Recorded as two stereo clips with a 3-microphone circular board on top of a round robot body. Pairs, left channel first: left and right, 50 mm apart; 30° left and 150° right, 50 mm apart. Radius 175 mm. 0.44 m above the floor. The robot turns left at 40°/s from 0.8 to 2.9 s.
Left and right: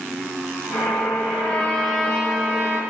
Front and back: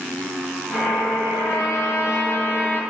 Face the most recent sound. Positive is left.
turn(degrees=-25)